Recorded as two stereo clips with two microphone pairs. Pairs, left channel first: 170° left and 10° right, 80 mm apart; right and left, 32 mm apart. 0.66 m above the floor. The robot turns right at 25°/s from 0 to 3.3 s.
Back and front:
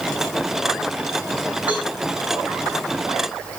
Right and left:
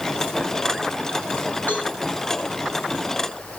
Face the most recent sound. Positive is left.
turn(degrees=-40)